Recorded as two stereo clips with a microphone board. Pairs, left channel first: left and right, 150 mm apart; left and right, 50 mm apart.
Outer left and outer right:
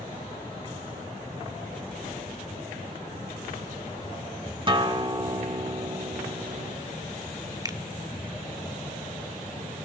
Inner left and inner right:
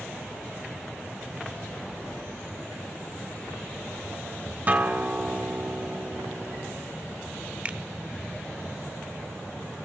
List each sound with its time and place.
4.7 s a guitar: 35° right (ahead or behind), 1.5 m
7.7 s a finger snap: 25° right (ahead or behind), 1.2 m